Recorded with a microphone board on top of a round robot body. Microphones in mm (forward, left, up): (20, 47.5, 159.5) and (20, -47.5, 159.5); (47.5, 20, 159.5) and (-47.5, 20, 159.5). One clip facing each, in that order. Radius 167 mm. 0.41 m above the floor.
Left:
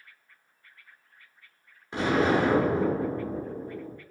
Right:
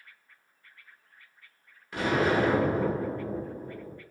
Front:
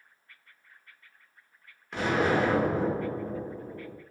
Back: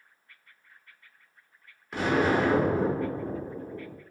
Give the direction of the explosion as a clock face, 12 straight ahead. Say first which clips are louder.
Left 2 dB, back 1 dB; 9 o'clock.